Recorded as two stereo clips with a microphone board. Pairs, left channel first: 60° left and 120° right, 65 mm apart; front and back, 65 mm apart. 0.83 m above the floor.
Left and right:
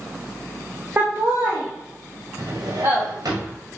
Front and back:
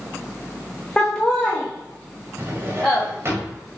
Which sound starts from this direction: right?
Laughter, at 1.0 s.